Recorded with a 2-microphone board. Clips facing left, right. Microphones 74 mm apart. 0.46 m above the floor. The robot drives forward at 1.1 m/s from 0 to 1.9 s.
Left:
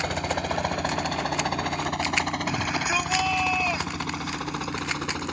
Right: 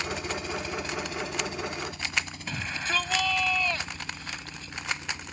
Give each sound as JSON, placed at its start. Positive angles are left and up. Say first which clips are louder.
{"t": 0.0, "sound": "a helicopter", "louder": "left 5 dB", "side_deg": 55}
{"t": 2.5, "sound": "a shout", "louder": "left 6 dB", "side_deg": 15}